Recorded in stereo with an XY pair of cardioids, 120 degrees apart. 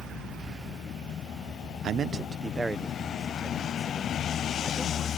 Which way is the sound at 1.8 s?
60° right.